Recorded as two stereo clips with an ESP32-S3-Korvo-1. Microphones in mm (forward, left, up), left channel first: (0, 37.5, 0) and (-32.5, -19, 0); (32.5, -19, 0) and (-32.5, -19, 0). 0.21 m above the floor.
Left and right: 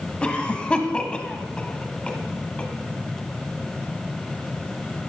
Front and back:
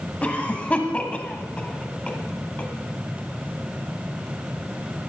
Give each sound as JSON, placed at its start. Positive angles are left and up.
{"t": 0.2, "sound": "a cough", "azimuth_deg": 20, "distance_m": 1.3}